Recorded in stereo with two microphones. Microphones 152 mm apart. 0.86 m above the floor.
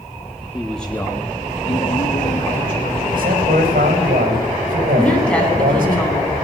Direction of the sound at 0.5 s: 5° right (ahead or behind).